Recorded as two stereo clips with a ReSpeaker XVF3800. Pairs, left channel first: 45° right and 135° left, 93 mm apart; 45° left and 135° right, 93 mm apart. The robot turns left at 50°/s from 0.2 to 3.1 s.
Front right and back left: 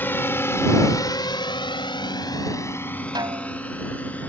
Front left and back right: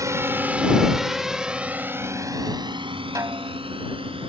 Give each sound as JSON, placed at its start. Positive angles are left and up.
{"t": 0.0, "sound": "a drone", "azimuth_deg": -105}
{"t": 3.1, "sound": "a snare drum", "azimuth_deg": 175}